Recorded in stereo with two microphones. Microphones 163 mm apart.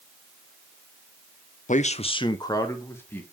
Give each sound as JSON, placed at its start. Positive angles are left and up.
{"t": 1.7, "sound": "a man speaking", "side_deg": 55, "distance_m": 0.5}